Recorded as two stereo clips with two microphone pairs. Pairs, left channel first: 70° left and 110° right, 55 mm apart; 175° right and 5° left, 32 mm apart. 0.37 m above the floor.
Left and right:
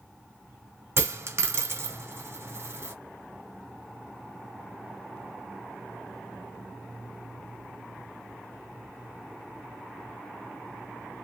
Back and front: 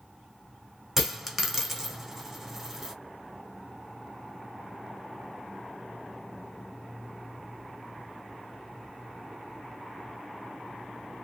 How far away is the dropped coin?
About 0.9 m.